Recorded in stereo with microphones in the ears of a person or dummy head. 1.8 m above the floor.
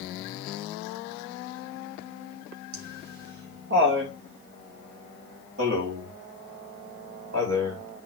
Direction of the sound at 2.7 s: 55° right (ahead or behind).